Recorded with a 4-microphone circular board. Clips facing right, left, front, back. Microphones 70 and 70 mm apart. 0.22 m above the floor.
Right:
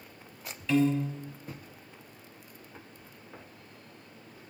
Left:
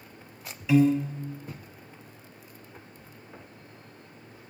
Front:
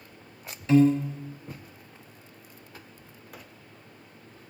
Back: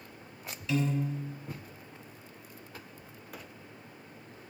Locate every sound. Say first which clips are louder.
0.7 s a piano: left 4 dB, front 11 dB; 15° left, 0.8 m